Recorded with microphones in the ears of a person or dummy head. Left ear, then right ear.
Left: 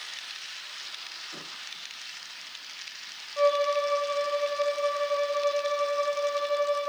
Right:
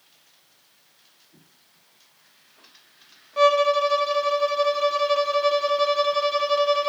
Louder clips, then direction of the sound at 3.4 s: Right 6 dB; 65° right (ahead or behind).